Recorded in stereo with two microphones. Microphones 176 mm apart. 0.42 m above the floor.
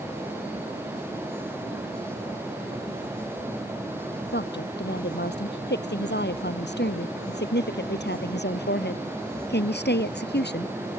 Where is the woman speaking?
80° left; by 10.8 s 75° left (ahead or behind).